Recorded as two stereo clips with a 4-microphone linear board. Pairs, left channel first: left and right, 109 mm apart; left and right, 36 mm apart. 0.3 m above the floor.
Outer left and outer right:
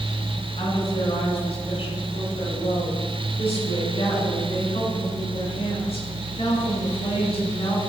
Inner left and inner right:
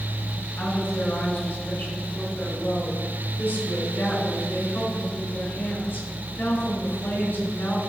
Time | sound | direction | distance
0.6 | a woman speaking | 60° left (ahead or behind) | 4 m